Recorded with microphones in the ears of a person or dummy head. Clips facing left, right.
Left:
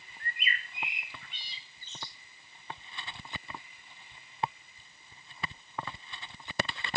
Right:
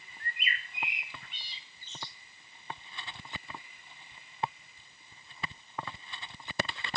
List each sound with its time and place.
0.2 s a bird: 70° left (ahead or behind), 2 m